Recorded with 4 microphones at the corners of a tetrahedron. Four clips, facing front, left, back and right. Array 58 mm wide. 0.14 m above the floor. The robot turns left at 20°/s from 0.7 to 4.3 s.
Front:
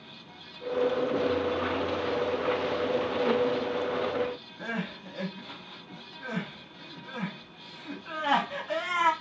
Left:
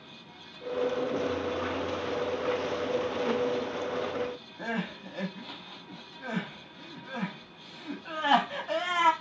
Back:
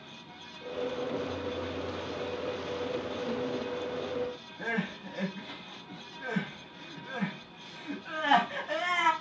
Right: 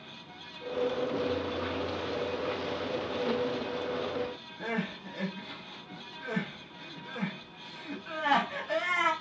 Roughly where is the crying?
Left.